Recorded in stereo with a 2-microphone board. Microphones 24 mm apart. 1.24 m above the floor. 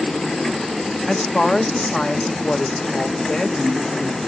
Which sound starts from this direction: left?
A woman speaking, at 1.1 s.